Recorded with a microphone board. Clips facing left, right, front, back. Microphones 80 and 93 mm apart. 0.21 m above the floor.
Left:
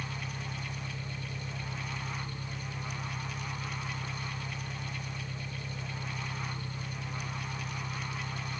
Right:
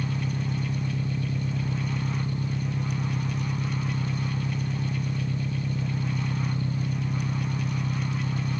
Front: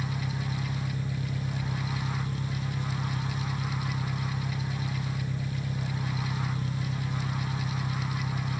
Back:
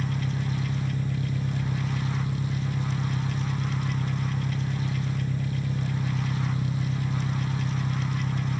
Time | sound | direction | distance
0.0 | an engine running | 105° right | ?